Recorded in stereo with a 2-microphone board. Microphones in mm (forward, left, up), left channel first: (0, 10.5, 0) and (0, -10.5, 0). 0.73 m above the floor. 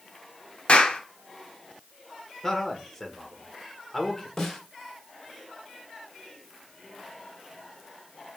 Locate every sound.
0.7 s a clap: 60° left (ahead or behind), 1.3 m
2.4 s a man speaking: 15° left (ahead or behind), 1.9 m
4.4 s a snare drum: 20° left (ahead or behind), 2.5 m